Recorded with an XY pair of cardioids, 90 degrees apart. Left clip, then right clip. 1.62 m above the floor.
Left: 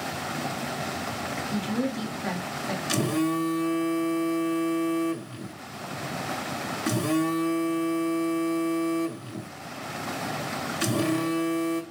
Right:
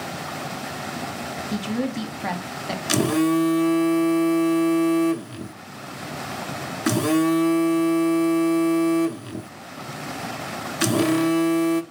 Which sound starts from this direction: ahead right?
A phone buzzing, at 2.9 s.